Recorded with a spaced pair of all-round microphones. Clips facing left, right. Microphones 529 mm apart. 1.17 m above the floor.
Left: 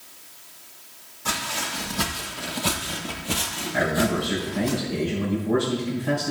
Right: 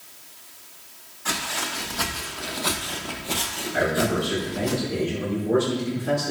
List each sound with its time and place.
1.2 s footsteps: 50° left (ahead or behind), 3 m; by 4.7 s 5° right (ahead or behind), 2 m
3.7 s a man speaking: 20° left (ahead or behind), 4 m